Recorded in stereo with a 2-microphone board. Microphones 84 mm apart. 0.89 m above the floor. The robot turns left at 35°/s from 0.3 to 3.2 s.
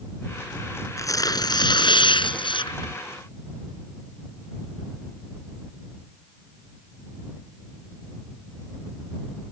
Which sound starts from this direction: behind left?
Tearing paper, at 1.0 s.